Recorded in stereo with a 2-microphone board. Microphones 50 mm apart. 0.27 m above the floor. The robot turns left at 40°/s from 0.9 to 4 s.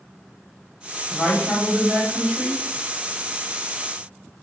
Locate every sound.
1.1 s a woman speaking: 70° left, 1.4 m; by 2.6 s 10° left, 1.4 m